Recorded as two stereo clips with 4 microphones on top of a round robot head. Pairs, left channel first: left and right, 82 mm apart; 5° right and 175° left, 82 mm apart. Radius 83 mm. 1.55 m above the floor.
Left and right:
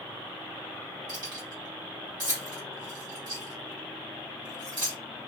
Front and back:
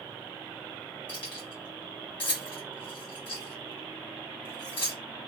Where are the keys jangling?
35° right, 1.4 m.